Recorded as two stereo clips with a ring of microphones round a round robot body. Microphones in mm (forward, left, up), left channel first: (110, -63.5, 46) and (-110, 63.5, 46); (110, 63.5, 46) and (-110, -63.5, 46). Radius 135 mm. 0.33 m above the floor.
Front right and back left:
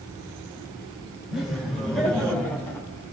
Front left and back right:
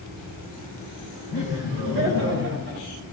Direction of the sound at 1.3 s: 120° right.